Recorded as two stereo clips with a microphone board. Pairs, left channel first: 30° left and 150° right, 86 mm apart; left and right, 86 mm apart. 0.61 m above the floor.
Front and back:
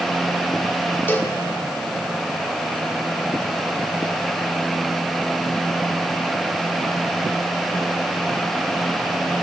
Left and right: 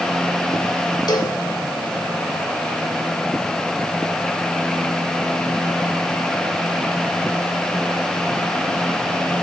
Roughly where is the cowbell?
Left.